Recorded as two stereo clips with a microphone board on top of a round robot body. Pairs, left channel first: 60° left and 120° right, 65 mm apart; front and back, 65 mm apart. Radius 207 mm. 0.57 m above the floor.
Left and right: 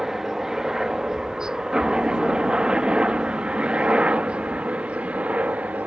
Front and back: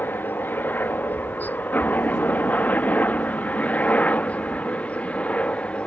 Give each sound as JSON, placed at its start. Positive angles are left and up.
{"t": 0.0, "sound": "a helicopter", "azimuth_deg": -40}